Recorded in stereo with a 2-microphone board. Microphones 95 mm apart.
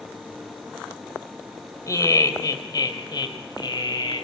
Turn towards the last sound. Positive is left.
turn(degrees=50)  # may be behind; listen again after turning